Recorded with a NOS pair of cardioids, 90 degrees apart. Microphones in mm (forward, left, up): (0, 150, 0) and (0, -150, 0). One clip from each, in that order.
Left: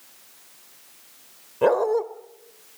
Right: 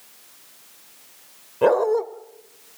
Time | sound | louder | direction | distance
1.6 | a dog barking | right 2 dB | straight ahead | 1.6 m